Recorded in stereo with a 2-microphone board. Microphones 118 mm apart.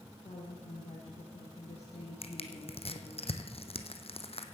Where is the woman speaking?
65° left (ahead or behind), 4 m.